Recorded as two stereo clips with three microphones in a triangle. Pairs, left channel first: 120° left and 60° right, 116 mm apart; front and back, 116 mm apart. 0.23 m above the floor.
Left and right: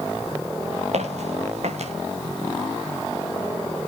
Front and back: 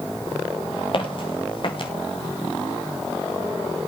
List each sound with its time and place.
0.9 s footsteps: 40° right, 4 m